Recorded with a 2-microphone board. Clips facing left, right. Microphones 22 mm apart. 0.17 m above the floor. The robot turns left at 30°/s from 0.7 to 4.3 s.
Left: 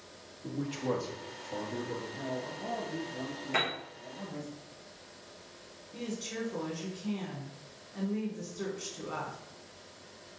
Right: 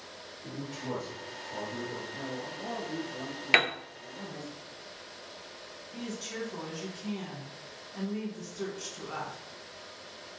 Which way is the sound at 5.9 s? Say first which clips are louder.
Even; 5° right (ahead or behind).